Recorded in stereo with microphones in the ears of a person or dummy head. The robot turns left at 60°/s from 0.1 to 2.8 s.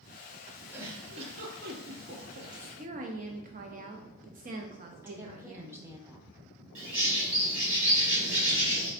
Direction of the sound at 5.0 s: 10° right (ahead or behind).